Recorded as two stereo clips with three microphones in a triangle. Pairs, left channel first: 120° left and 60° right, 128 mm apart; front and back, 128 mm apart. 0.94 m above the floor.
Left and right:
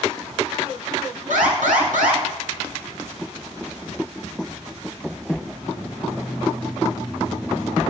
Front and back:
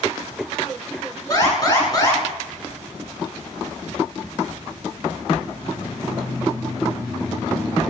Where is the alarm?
60° right, 8.5 m.